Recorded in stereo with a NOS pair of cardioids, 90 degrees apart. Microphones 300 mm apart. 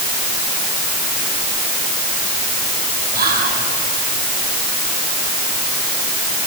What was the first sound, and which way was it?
Whispering, 30° right.